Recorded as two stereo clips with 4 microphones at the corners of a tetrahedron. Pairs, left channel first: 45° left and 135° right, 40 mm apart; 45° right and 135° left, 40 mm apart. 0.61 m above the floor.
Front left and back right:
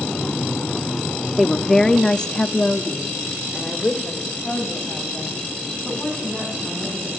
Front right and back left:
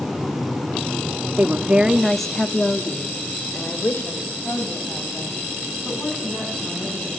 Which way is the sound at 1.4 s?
135° left.